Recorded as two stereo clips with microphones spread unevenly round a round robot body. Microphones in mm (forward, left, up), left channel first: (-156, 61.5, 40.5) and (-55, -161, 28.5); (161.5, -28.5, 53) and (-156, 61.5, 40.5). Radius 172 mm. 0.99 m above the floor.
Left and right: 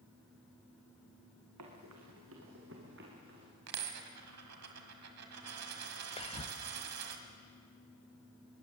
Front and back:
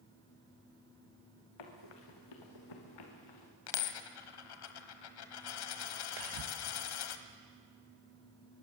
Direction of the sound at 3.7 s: 20° right.